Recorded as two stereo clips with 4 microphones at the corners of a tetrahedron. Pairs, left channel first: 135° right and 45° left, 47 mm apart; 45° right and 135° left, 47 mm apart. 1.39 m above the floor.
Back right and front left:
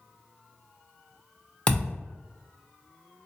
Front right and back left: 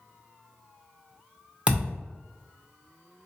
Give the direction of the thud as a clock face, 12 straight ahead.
6 o'clock.